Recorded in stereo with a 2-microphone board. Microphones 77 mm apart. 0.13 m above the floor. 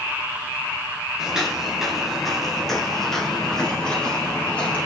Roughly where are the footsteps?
Centre.